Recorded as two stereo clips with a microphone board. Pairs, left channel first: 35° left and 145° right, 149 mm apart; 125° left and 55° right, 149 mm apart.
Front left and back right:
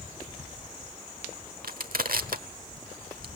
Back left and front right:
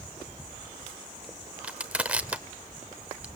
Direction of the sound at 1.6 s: 135° right.